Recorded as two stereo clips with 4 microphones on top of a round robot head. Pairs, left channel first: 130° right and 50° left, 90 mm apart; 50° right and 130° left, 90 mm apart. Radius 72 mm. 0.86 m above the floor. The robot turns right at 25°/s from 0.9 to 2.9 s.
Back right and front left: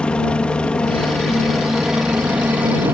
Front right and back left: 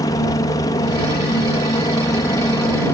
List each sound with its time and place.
0.0 s a helicopter: 55° right; by 3.0 s 5° right